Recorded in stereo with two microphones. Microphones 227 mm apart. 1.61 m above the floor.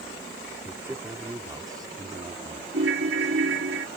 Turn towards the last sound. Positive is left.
turn(degrees=-60)  # may be behind; listen again after turning